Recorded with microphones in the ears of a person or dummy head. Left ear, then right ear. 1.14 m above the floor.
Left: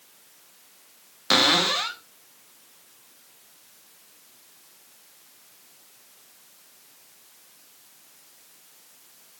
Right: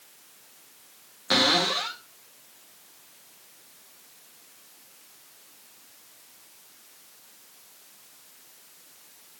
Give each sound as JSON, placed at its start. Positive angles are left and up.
{"t": 1.3, "sound": "a cupboard door", "side_deg": 20, "distance_m": 0.7}